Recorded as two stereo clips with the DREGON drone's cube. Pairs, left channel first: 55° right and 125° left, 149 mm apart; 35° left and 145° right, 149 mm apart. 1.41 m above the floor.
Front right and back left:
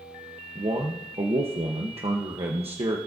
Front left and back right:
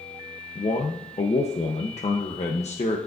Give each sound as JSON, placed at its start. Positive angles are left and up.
{"t": 0.6, "sound": "a man speaking", "azimuth_deg": 75, "distance_m": 1.0}